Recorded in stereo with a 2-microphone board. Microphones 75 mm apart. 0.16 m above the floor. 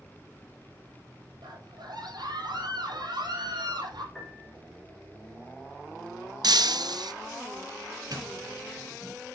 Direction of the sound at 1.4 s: 70° right (ahead or behind).